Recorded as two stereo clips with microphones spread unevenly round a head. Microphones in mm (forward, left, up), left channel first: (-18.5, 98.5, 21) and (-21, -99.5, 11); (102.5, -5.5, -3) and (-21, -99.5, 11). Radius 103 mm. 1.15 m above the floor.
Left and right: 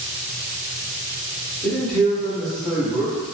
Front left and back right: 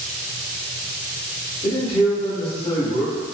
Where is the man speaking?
Straight ahead, 1.0 m.